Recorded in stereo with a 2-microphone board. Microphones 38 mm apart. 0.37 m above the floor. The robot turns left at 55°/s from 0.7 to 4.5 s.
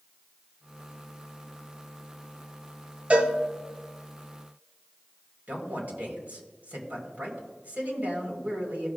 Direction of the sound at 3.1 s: 40° right (ahead or behind).